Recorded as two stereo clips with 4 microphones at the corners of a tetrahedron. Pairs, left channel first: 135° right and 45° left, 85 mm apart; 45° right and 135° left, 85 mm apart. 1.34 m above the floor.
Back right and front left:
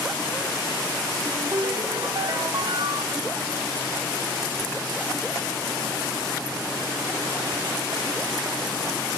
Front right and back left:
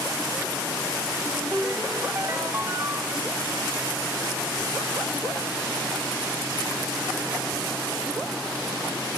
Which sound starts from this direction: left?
A ringtone, at 1.2 s.